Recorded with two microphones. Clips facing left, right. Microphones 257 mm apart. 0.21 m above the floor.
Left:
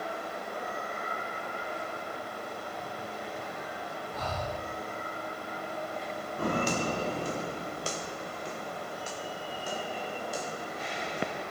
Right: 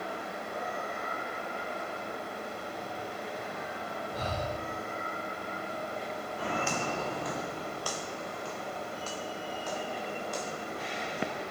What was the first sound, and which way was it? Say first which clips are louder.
Breathing: right 1 dB; 35° right (ahead or behind).